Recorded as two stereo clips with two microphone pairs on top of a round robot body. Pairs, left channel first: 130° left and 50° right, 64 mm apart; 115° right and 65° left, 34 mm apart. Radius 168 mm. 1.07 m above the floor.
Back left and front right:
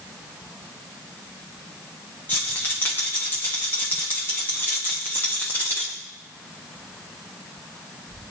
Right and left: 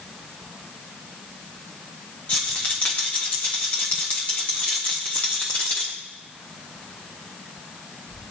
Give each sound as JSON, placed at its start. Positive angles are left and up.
{"t": 2.3, "sound": "a rattle", "azimuth_deg": -170, "distance_m": 0.6}